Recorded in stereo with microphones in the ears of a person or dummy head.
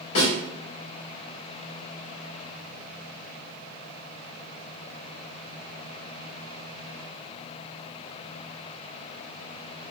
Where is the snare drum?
70° left (ahead or behind), 1.6 m.